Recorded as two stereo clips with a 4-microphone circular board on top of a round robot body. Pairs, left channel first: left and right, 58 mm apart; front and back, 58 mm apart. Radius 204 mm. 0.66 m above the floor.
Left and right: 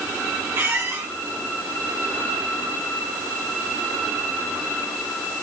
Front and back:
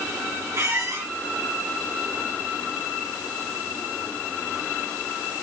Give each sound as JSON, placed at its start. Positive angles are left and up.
{"t": 0.5, "sound": "a squeak", "azimuth_deg": -140, "distance_m": 3.0}